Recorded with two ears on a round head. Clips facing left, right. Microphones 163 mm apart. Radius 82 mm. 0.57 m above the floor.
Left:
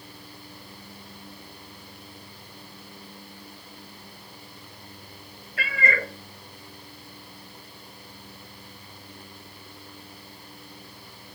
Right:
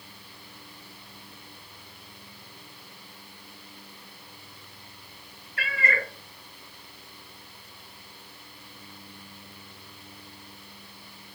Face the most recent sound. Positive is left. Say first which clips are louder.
# left 2 dB
turn(degrees=80)